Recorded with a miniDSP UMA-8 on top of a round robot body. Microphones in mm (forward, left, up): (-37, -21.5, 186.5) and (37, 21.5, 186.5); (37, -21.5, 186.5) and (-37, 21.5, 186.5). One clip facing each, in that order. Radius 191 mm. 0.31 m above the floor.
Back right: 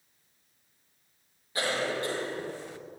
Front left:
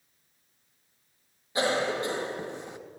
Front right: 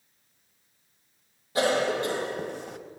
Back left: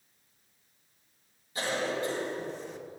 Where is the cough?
40° right, 3.5 m.